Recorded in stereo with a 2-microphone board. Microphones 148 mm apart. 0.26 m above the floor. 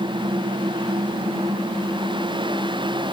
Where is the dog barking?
I don't hear a dog barking.